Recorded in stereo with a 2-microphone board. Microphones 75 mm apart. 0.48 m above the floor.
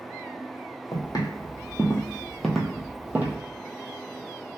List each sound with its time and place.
0.9 s footsteps: 55° left (ahead or behind), 1.0 m; by 3.4 s 30° right (ahead or behind), 0.8 m